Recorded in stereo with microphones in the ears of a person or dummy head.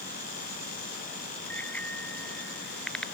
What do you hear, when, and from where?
1.5 s a bicycle bell: 10° left (ahead or behind); by 3.1 s 5° left (ahead or behind)